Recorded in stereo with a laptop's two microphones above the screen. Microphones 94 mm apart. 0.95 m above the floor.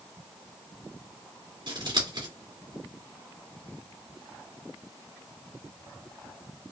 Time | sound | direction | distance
1.7 | scissors | 65° right (ahead or behind) | 2 m